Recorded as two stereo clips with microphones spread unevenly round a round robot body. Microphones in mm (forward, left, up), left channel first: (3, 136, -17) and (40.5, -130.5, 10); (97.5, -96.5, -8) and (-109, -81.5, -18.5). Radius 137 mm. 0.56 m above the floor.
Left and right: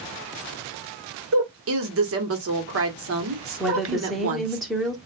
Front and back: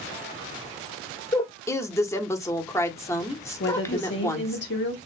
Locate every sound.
1.3 s a woman speaking: 80° right, 1.4 m
3.6 s a woman speaking: 10° left, 1.5 m